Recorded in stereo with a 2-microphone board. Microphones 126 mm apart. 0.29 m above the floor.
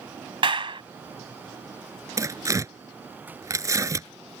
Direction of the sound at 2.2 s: 25° right (ahead or behind).